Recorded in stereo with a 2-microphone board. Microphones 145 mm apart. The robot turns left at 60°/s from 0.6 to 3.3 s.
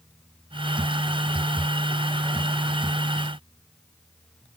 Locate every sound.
Only background noise.